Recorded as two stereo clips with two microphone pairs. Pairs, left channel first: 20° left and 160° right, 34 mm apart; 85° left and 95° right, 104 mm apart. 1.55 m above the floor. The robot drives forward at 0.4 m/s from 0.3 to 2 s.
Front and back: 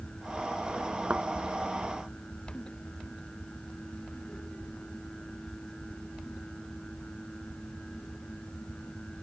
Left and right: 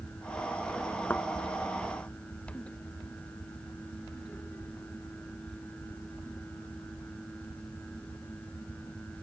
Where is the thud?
155° left.